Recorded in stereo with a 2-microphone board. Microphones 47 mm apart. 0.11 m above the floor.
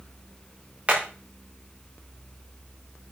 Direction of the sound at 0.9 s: 30° right (ahead or behind).